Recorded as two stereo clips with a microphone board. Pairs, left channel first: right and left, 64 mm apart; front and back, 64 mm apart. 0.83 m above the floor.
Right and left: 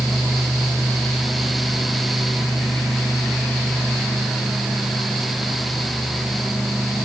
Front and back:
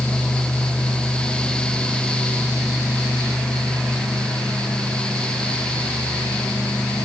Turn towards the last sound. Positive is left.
No sound to turn to.